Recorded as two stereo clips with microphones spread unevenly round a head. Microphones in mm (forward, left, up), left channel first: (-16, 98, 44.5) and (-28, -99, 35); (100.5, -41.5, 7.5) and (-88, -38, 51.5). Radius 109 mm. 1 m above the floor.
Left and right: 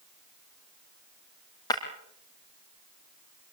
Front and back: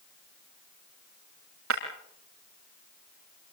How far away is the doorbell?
No doorbell in this recording.